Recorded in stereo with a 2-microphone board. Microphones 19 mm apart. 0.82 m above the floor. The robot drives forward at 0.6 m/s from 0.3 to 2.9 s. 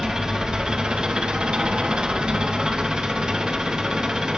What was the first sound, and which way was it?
An engine running, 40° right (ahead or behind).